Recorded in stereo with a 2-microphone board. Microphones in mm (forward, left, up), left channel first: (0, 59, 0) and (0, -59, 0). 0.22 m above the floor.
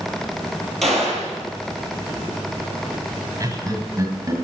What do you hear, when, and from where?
0.8 s a gunshot: centre (ahead or behind), 2.5 m
3.4 s laughter: 25° right (ahead or behind), 1.8 m